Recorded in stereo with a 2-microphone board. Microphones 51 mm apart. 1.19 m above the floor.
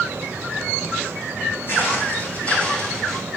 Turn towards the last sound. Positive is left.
turn(degrees=5)  # may be behind; listen again after turning